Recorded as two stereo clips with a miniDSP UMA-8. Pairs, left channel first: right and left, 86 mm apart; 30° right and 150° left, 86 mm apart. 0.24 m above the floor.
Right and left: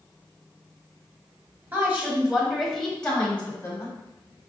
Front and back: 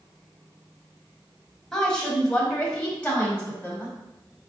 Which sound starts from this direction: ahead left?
A woman speaking, at 1.7 s.